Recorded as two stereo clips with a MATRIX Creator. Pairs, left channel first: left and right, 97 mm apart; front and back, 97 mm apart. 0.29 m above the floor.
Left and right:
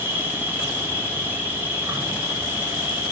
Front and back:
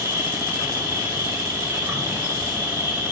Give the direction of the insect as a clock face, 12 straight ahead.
5 o'clock.